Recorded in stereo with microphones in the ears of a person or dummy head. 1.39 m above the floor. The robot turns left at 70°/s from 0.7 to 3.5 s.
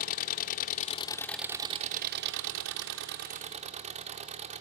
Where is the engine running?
50° left, 1.0 m; by 4.6 s 150° right, 1.0 m.